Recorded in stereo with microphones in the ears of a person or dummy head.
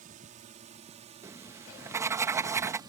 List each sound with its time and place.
0.0 s a drone: 40° right (ahead or behind); by 2.9 s 20° right (ahead or behind)
1.2 s writing: 15° right (ahead or behind)